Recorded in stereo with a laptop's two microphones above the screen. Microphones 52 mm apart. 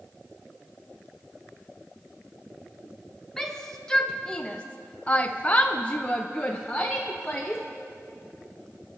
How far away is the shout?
About 1.1 m.